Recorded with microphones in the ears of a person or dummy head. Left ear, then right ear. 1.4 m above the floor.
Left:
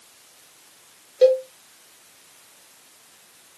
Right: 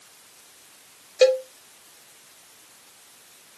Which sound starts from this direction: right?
A cowbell, at 1.2 s.